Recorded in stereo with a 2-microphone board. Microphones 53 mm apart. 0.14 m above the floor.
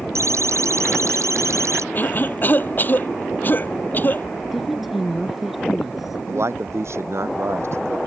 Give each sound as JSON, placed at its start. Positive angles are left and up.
{"t": 0.1, "sound": "a siren", "side_deg": -70}
{"t": 1.9, "sound": "a cough", "side_deg": 35}
{"t": 4.5, "sound": "a woman speaking", "side_deg": -5}
{"t": 6.3, "sound": "a man speaking", "side_deg": -60}